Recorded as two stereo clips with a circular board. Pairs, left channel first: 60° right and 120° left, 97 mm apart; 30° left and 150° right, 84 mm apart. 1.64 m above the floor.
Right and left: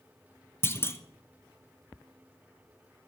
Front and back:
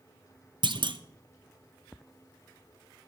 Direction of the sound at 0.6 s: 125° right.